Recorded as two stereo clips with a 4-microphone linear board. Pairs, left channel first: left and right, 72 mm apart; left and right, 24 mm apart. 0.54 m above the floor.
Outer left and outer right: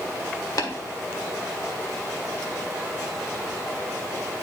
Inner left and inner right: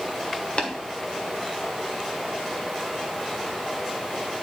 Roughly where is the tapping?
Left.